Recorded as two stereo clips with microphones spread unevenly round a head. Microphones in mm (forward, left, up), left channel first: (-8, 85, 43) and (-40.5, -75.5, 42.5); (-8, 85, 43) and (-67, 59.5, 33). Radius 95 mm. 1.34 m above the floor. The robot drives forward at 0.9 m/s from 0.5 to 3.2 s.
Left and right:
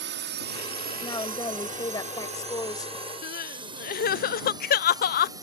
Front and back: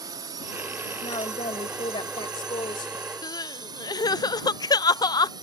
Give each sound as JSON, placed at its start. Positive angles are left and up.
{"t": 0.0, "sound": "a drone", "azimuth_deg": -115}
{"t": 1.0, "sound": "a woman speaking", "azimuth_deg": 5}
{"t": 3.2, "sound": "crying", "azimuth_deg": 45}